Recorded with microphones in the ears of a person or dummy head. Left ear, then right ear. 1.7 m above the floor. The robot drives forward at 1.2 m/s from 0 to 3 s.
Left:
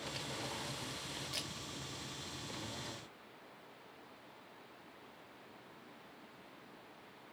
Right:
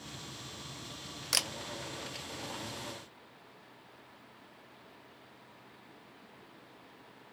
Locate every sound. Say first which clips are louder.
1.3 s a camera shutter: right 13 dB; 55° right (ahead or behind), 0.5 m; by 1.5 s 40° right (ahead or behind), 0.6 m